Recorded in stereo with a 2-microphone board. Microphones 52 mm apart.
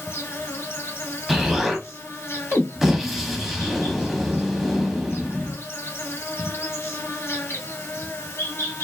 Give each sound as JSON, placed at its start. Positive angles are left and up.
{"t": 0.0, "sound": "an insect", "side_deg": 60, "distance_m": 1.2}
{"t": 1.3, "sound": "an explosion", "side_deg": -5, "distance_m": 0.6}